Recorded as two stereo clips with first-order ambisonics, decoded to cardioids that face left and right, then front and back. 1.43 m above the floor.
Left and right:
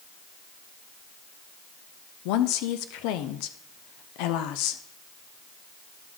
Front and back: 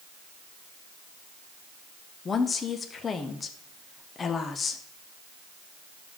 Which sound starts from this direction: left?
A woman speaking, at 2.2 s.